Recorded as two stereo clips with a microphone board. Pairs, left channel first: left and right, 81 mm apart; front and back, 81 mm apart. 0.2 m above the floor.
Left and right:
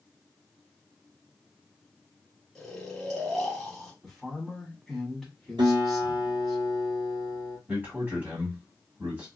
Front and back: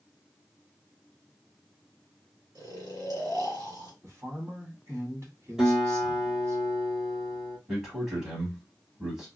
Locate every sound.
2.5 s snoring: straight behind, 1.5 m
4.0 s a woman speaking: straight behind, 1.2 m
5.6 s a guitar: 95° right, 1.1 m
7.7 s a man speaking: 105° right, 1.7 m